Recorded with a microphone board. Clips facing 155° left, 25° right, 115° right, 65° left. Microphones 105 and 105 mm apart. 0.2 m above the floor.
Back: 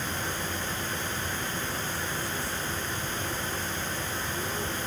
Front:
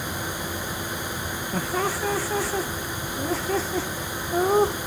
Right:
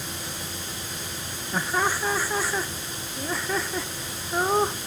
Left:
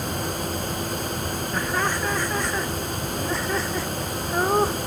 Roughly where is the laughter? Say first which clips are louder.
Front 8 dB, right 1 dB; ahead right.